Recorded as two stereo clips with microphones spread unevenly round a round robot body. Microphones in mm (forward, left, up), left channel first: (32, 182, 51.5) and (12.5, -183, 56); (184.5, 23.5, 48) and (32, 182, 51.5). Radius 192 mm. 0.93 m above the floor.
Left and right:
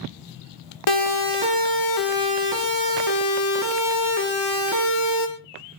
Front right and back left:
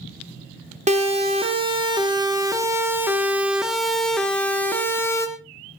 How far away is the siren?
About 3.5 m.